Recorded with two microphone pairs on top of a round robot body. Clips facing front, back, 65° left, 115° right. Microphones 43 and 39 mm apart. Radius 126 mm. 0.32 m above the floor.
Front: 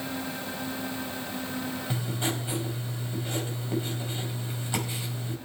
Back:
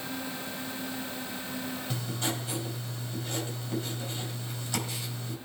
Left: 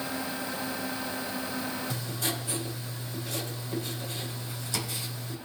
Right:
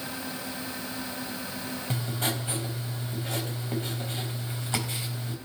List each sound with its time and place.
1.9 s writing: 65° right, 4.5 m